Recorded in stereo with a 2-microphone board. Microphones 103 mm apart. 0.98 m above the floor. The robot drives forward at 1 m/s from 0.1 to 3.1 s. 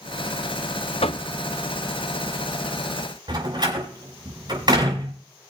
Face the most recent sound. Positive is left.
turn(degrees=-50)  # may be behind; listen again after turning